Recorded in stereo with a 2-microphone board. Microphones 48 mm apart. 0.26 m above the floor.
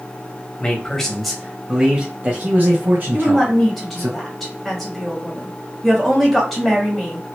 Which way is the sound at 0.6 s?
20° left (ahead or behind).